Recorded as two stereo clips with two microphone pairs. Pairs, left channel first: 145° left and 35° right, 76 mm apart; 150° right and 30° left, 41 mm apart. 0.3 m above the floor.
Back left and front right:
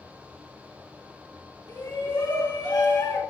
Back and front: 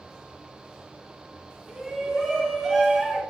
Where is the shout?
130° left, 4 m; by 3.2 s 120° left, 3 m.